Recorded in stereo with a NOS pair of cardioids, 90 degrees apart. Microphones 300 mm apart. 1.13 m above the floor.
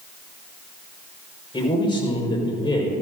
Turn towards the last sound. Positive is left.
turn(degrees=15)